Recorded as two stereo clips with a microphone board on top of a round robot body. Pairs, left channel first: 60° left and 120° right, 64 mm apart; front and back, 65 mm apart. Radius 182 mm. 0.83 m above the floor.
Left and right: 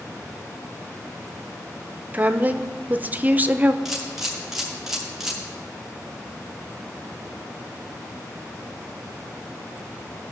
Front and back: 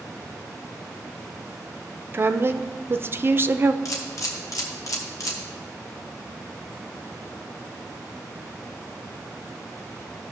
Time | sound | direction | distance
2.1 | a woman speaking | 165° right | 0.7 m
3.9 | a camera shutter | 35° right | 1.1 m